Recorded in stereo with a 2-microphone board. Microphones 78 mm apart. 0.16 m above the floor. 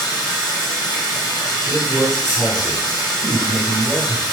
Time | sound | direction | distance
0.0 | running water | 65° left (ahead or behind) | 1.5 m
1.7 | a man speaking | 5° left (ahead or behind) | 1.5 m